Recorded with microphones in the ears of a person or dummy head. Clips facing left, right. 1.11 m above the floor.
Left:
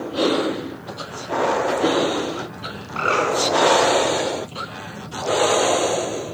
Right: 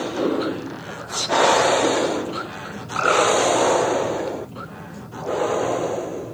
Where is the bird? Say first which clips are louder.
Right 3 dB; 15° right (ahead or behind), 6 m.